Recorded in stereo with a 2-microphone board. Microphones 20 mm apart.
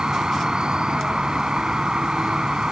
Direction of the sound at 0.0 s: 50° right (ahead or behind).